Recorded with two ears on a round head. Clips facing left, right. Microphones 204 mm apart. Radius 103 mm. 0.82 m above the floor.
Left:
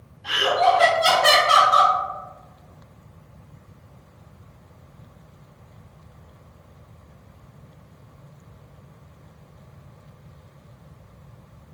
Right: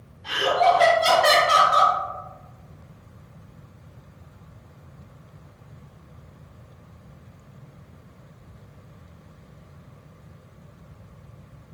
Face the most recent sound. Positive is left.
turn(degrees=10)  # may be behind; listen again after turning